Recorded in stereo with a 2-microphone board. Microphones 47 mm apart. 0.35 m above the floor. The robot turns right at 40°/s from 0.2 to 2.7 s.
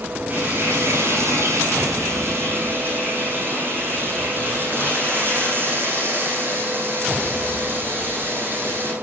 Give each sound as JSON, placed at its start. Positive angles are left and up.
{"t": 0.3, "sound": "frying", "azimuth_deg": -140, "distance_m": 9.0}